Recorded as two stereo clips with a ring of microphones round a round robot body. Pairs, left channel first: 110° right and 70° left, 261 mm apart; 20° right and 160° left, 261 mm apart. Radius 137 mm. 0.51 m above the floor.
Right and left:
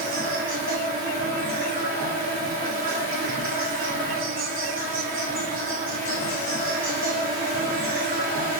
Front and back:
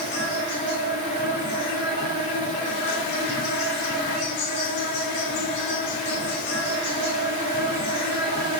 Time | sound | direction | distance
0.0 | an insect | 30° left | 2.5 m